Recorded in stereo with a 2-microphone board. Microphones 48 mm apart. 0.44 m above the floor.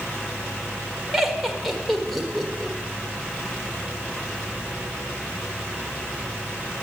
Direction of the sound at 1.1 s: Centre (ahead or behind).